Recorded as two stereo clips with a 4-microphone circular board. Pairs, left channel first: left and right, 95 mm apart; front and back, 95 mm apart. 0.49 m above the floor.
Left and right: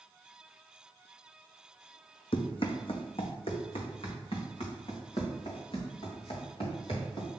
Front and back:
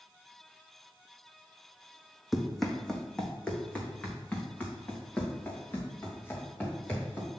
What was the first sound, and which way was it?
Running footsteps, 95° left.